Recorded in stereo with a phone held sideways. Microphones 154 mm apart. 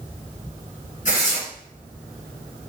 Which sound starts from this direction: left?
Tearing paper, at 1.1 s.